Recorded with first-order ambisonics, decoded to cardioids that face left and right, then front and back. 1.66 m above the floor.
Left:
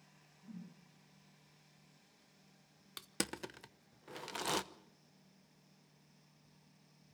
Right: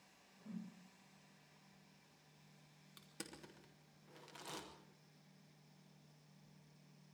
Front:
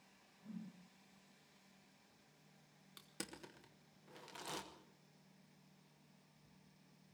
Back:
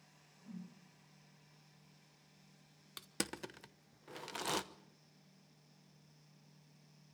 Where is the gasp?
I don't hear a gasp.